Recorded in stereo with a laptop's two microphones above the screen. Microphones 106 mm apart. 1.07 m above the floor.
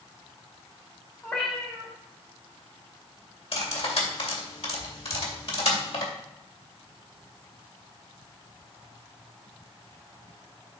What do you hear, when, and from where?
1.2 s a cat meowing: 15° left (ahead or behind), 2.5 m
3.5 s cutlery clinking: 70° left (ahead or behind), 2 m